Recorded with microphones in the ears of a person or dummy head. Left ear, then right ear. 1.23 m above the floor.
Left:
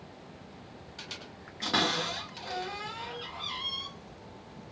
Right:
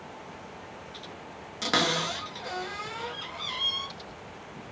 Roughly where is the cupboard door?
Right.